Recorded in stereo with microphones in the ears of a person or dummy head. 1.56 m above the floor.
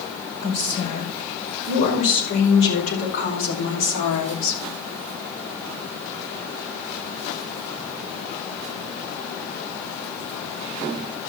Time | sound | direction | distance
0.4 | a woman speaking | 55° left (ahead or behind) | 6.5 m